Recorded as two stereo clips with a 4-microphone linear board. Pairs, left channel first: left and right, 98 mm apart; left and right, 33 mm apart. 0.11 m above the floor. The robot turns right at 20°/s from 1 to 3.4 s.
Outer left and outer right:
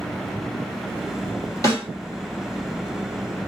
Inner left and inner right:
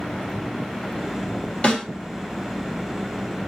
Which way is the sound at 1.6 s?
30° left (ahead or behind).